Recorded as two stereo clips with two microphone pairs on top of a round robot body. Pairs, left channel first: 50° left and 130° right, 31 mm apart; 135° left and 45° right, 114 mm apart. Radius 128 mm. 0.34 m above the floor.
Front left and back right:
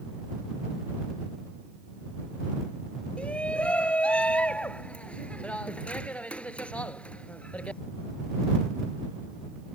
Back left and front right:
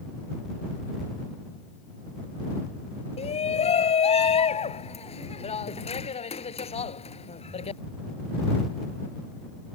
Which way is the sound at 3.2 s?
100° left.